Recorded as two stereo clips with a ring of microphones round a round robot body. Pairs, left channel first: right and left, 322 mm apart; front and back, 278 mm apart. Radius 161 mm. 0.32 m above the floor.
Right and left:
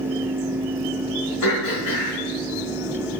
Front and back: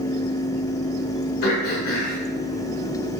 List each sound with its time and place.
1.4 s throat clearing: 60° right, 3 m